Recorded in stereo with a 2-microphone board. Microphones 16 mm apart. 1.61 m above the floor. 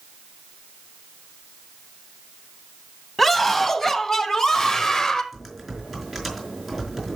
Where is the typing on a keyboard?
5° left (ahead or behind), 4.5 m.